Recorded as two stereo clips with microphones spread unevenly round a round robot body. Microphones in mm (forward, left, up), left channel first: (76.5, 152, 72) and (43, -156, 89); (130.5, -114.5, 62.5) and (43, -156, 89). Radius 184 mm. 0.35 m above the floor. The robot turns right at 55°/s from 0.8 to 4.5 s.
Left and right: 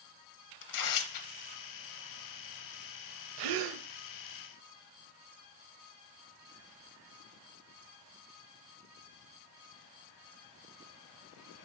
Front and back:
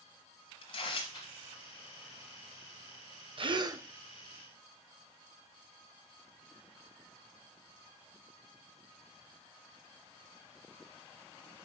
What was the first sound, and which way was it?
Tearing paper, 55° left.